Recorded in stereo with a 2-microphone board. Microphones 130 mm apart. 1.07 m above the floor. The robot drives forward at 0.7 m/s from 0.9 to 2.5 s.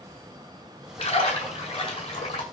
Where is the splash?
50° left (ahead or behind), 8 m; by 2.4 s 45° left (ahead or behind), 8.5 m.